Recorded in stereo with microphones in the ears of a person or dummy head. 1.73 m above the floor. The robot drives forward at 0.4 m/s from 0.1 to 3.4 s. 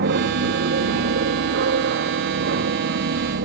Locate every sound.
0.0 s an aircraft: 55° right (ahead or behind)